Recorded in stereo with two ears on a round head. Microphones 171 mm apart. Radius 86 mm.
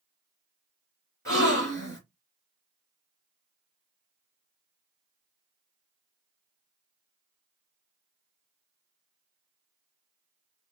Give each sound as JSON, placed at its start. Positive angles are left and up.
{"t": 1.2, "sound": "a gasp", "side_deg": 15, "distance_m": 3.0}